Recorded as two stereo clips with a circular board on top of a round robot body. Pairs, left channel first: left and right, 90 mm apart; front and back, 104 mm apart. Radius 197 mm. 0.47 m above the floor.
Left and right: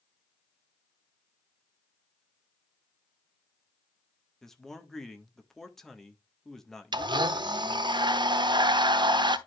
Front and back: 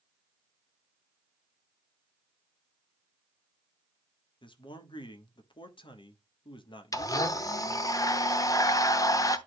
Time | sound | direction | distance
4.4 | a man speaking | 5° left | 1.6 m
6.9 | a blender | 55° right | 1.1 m